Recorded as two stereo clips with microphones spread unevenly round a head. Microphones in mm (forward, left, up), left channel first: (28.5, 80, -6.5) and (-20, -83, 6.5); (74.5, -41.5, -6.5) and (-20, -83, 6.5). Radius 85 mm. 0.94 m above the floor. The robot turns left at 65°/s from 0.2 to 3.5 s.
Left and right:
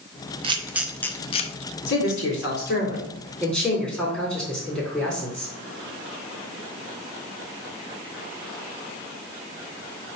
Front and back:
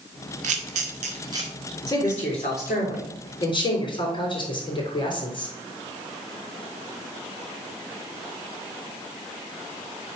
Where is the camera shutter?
170° right, 0.7 m; by 1.5 s 125° left, 0.7 m.